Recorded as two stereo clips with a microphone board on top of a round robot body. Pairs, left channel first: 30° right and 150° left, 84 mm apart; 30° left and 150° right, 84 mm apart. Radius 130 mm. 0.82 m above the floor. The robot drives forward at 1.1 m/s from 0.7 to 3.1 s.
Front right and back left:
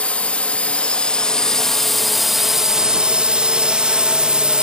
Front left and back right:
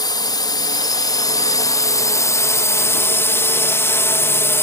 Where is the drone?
40° left; by 4.6 s 75° left.